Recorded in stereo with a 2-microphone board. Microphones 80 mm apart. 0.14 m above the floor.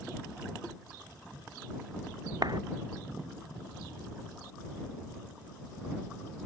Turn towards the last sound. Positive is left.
turn(degrees=-60)  # may be behind; listen again after turning